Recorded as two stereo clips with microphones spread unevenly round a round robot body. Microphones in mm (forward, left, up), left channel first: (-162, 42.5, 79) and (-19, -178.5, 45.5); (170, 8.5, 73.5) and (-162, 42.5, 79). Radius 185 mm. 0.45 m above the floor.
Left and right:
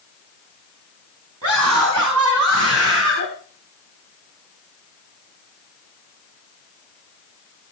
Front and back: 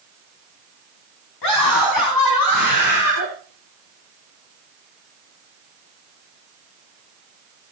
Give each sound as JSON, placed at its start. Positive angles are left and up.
{"t": 1.4, "sound": "a scream", "azimuth_deg": -20, "distance_m": 5.5}